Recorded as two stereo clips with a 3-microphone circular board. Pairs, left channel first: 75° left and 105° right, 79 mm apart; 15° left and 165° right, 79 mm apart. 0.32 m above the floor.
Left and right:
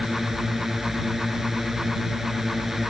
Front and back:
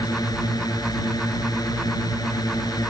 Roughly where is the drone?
Ahead.